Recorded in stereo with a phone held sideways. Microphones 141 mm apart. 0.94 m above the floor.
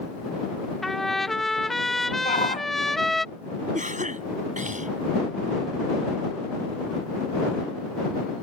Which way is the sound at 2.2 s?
60° left (ahead or behind).